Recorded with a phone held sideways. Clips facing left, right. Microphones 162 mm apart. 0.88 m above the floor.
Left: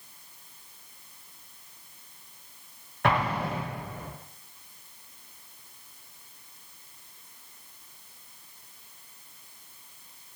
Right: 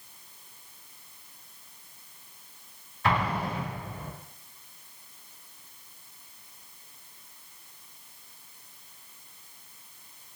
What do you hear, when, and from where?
3.0 s an explosion: 65° left (ahead or behind), 0.8 m